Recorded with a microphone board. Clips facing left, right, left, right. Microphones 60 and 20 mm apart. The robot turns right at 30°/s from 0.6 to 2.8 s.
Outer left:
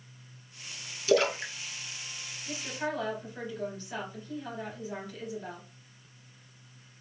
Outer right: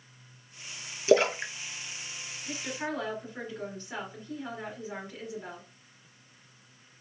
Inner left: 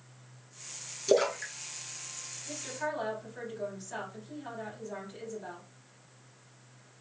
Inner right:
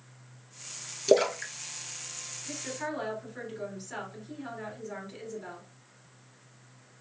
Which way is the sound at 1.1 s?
25° right (ahead or behind).